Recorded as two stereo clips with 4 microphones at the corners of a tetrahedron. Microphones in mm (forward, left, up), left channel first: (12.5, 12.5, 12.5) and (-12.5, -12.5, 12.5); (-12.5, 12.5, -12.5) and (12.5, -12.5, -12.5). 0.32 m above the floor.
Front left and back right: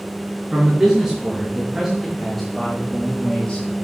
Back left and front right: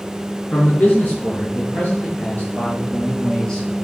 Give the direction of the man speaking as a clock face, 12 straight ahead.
7 o'clock.